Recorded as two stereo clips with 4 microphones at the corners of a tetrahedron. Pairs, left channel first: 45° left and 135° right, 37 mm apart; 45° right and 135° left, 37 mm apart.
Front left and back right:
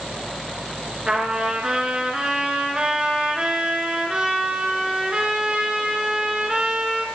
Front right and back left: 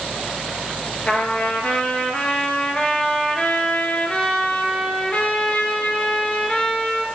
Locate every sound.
1.1 s a trumpet: 85° right, 1.7 m